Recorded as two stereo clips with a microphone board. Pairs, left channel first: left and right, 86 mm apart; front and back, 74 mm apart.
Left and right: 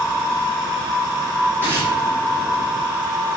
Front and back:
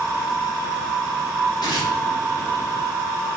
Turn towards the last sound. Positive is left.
turn(degrees=-20)